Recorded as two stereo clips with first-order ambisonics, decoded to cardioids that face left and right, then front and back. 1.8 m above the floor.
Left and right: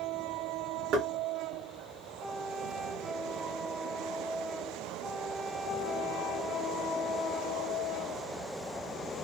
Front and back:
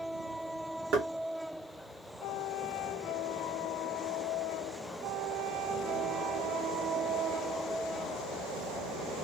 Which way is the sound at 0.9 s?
130° right.